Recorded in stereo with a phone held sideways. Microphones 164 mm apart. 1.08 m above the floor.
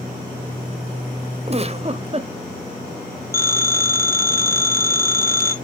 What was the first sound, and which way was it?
A giggle, 40° right (ahead or behind).